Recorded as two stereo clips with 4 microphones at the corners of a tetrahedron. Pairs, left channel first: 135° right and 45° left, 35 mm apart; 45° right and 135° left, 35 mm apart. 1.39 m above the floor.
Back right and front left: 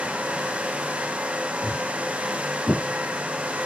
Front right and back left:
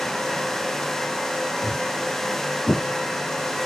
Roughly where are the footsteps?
Ahead.